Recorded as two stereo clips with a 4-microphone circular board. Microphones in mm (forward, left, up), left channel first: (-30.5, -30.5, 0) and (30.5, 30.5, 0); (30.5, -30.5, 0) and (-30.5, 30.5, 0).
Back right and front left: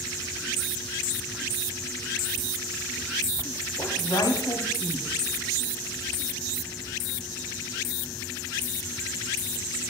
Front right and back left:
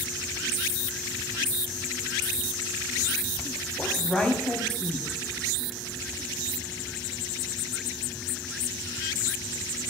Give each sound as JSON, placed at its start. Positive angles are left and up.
{"t": 3.8, "sound": "a woman speaking", "azimuth_deg": -115, "distance_m": 2.5}